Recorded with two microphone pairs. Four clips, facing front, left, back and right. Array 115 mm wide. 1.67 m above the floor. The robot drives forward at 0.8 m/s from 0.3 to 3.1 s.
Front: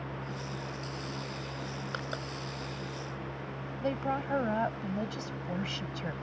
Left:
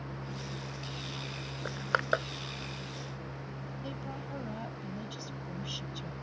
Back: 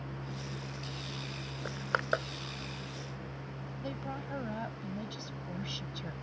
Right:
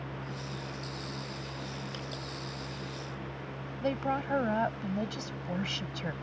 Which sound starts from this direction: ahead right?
A woman speaking, at 3.8 s.